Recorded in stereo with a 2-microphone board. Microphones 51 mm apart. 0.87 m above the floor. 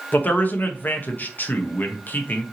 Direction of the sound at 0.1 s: 35° left (ahead or behind).